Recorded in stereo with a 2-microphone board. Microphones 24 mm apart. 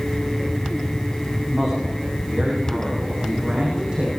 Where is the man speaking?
30° right (ahead or behind), 6.5 m; by 4.1 s 45° right (ahead or behind), 7 m.